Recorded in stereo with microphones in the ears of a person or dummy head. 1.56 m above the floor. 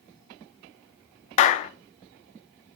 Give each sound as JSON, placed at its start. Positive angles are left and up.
{"t": 1.4, "sound": "a clap", "side_deg": 35, "distance_m": 0.6}